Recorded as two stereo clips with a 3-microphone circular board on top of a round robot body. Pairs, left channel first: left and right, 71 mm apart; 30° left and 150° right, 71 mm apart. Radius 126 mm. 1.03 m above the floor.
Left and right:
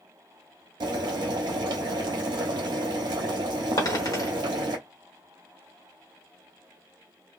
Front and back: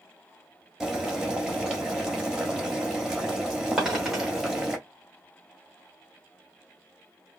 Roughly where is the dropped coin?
Behind left.